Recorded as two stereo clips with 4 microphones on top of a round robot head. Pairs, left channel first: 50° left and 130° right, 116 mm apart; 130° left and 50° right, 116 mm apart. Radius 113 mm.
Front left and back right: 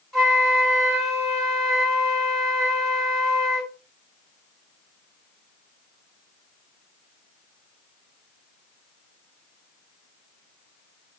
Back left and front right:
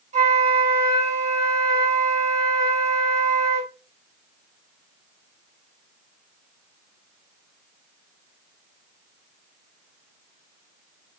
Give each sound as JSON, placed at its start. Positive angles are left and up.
{"t": 0.1, "sound": "a flute", "azimuth_deg": -40, "distance_m": 2.0}